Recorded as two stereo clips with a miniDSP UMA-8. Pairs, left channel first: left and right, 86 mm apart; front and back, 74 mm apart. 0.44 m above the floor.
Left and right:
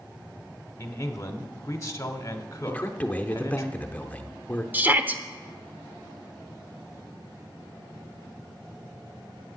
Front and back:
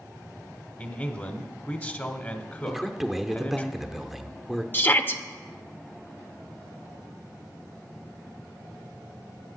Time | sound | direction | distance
0.8 | a man speaking | 55° left | 1.0 m
2.7 | a man speaking | 100° left | 0.7 m
4.7 | a shout | 35° right | 0.8 m